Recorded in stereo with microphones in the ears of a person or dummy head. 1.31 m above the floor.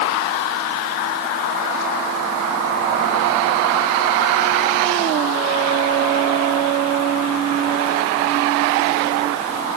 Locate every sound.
Only background noise.